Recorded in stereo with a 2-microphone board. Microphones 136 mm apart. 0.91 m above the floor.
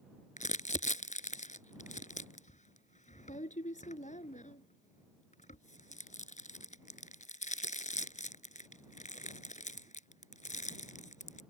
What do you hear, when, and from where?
0.4 s crumpling: 70° left (ahead or behind)